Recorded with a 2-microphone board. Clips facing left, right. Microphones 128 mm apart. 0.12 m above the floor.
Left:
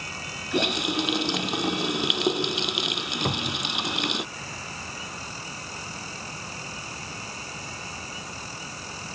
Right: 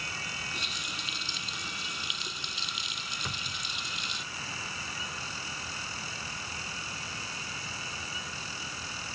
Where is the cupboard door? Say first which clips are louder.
Left 14 dB; 55° left (ahead or behind).